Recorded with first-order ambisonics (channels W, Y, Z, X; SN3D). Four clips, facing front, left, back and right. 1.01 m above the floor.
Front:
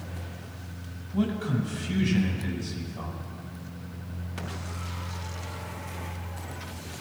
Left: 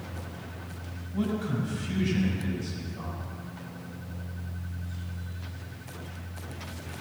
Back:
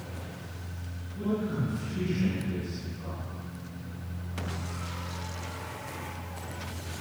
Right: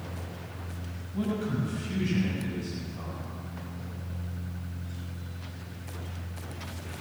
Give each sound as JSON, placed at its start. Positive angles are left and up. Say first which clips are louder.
{"t": 1.1, "sound": "a man speaking", "louder": "left 1 dB, front 3 dB", "azimuth_deg": 0, "distance_m": 5.0}